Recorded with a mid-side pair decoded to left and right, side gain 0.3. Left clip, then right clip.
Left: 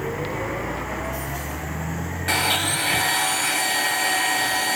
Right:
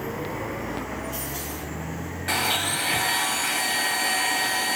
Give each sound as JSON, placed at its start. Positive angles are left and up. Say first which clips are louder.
{"t": 2.3, "sound": "a blender", "louder": "left 3 dB", "azimuth_deg": 40, "distance_m": 1.3}